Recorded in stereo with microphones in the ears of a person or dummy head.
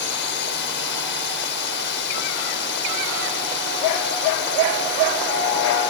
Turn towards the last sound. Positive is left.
turn(degrees=60)  # may be behind; listen again after turning